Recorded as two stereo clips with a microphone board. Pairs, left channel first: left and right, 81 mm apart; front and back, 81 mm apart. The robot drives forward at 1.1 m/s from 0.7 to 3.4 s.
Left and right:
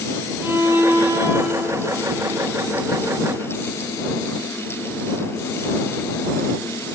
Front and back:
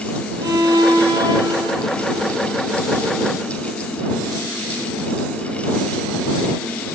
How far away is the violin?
About 3.5 m.